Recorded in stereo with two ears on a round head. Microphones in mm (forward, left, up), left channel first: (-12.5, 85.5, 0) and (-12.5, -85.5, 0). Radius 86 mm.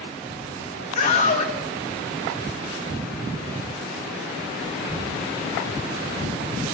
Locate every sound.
0.9 s a scream: 35° left (ahead or behind), 1.7 m